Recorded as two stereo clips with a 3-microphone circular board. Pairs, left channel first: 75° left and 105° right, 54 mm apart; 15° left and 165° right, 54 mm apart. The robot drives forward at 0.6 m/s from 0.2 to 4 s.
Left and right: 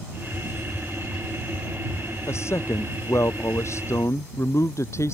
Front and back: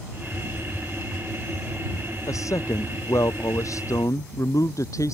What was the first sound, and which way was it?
A man speaking, 35° left.